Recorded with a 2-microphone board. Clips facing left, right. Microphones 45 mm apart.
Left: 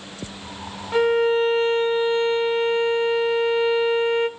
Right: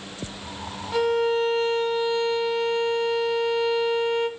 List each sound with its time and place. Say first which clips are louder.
0.9 s a violin: left 4 dB; 25° left (ahead or behind), 0.6 m